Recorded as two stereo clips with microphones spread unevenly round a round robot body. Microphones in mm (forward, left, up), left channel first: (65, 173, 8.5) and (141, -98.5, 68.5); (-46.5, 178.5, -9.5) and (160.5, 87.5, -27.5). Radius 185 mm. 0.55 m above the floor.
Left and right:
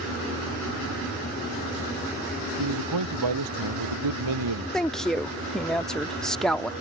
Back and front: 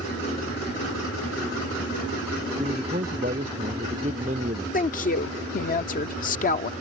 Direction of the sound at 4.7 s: 170° left.